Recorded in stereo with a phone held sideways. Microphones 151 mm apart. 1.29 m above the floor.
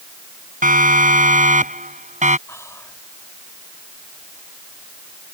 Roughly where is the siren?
Right.